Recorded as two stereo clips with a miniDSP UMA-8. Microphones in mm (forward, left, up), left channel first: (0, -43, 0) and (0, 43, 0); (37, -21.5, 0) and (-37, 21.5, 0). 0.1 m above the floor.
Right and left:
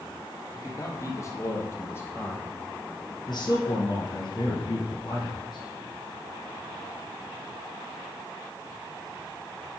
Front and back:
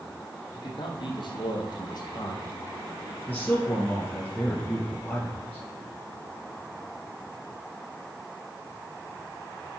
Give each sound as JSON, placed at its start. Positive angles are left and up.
{"t": 0.5, "sound": "a man speaking", "azimuth_deg": -40, "distance_m": 3.0}
{"t": 3.3, "sound": "a man speaking", "azimuth_deg": -95, "distance_m": 2.5}